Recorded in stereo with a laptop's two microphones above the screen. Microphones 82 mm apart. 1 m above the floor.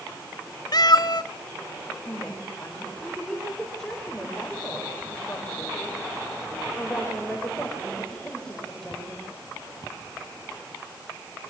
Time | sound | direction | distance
0.7 | a cat meowing | 55° left (ahead or behind) | 1.0 m
2.0 | a woman speaking | 10° left (ahead or behind) | 3.5 m